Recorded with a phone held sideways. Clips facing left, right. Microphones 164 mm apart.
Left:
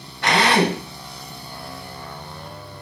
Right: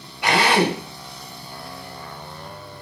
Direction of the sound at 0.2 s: 10° right (ahead or behind).